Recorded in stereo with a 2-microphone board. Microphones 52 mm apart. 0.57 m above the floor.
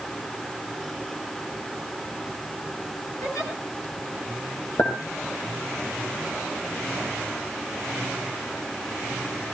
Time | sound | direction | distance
3.2 | a giggle | 80° left | 7 m
4.8 | a clink | 80° left | 7.5 m